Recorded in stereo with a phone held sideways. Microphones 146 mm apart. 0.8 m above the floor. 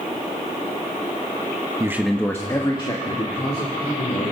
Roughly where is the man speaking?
Right.